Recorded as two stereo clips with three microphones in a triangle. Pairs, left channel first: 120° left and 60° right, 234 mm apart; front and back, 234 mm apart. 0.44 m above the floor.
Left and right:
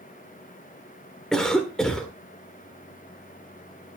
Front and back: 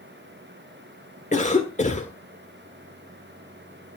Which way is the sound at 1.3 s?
35° left.